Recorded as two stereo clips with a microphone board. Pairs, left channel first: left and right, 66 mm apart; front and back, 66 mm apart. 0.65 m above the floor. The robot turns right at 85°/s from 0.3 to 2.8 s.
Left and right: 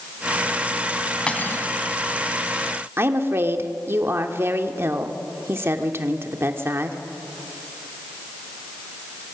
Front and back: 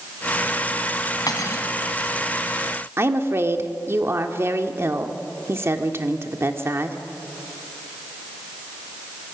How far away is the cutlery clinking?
About 3 m.